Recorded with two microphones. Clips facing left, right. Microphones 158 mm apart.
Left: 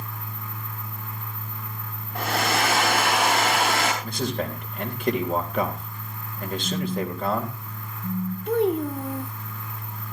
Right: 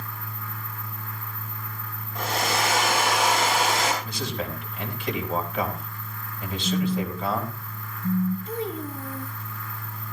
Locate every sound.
2.1 s a hair dryer: 60° left (ahead or behind), 6.5 m
4.0 s a man speaking: 55° left (ahead or behind), 3 m
6.6 s a phone buzzing: 15° left (ahead or behind), 1.5 m
8.5 s a child speaking: 65° left (ahead or behind), 0.9 m